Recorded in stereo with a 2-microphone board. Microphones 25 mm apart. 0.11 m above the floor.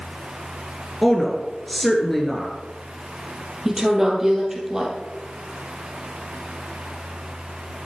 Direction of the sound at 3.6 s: 15° right (ahead or behind).